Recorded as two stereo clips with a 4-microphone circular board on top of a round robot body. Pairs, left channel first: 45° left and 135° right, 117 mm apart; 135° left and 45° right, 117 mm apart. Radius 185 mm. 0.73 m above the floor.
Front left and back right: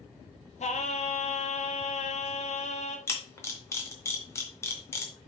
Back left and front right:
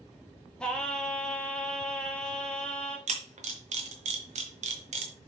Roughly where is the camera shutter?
Ahead right.